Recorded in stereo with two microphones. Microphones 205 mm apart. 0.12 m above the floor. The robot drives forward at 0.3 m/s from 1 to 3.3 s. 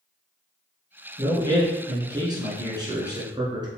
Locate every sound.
1.2 s a man speaking: 20° right (ahead or behind), 1.4 m